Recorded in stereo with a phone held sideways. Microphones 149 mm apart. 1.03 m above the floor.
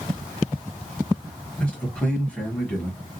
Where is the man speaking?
5° left (ahead or behind), 1.4 m.